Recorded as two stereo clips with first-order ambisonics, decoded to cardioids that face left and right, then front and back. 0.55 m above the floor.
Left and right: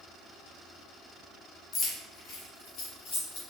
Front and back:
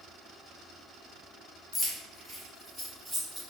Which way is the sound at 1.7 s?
60° left.